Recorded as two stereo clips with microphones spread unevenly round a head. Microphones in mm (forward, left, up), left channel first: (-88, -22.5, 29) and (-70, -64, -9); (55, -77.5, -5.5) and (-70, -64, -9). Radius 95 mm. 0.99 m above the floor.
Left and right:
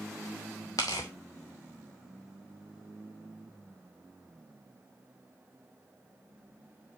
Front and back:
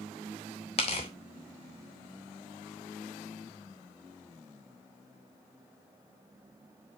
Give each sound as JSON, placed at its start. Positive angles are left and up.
{"t": 0.8, "sound": "tearing paper", "azimuth_deg": 55, "distance_m": 0.8}